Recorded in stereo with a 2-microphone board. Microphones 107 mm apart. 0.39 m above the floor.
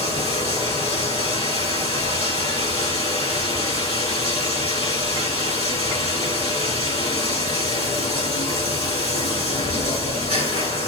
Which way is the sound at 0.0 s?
70° left (ahead or behind).